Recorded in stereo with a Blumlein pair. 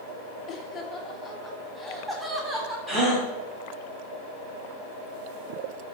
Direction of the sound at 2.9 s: 10° right.